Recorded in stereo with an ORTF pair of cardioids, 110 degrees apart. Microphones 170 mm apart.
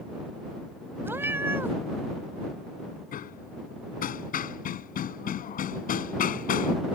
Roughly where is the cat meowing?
Ahead.